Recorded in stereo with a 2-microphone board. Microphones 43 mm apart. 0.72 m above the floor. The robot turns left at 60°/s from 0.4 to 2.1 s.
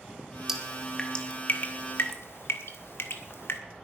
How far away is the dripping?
About 1.6 m.